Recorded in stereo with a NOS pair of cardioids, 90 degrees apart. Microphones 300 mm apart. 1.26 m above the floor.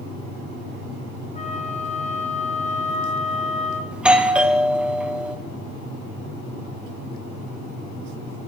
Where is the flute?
25° left, 2.5 m.